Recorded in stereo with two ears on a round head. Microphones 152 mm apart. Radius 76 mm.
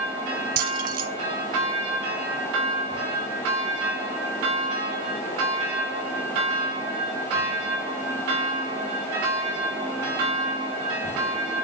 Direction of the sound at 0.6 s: 55° right (ahead or behind).